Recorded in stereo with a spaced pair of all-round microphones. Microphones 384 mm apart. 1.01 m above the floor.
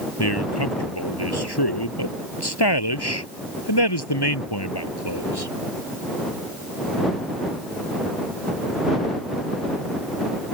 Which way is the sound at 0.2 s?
80° left.